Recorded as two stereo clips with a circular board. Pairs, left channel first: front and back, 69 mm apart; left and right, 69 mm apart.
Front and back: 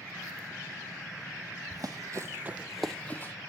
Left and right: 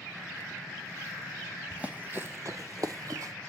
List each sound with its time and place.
1.7 s running footsteps: 160° right, 0.9 m; by 3.3 s 55° right, 0.8 m